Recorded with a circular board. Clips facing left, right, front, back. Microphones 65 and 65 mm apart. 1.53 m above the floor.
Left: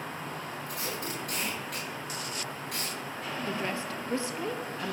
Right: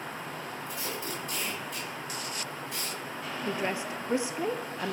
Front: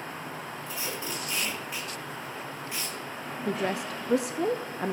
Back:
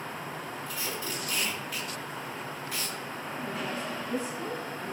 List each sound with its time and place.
0.7 s tape being pulled: 70° left, 6 m
3.5 s a woman speaking: 20° right, 0.5 m